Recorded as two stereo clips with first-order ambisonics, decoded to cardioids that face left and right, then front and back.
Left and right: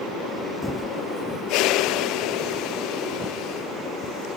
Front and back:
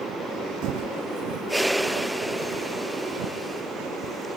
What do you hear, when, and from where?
0.6 s footsteps: straight behind; by 4.2 s 165° right